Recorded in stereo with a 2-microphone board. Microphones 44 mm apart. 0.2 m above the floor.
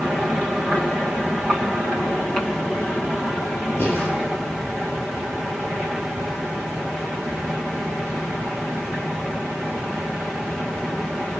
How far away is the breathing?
About 5 m.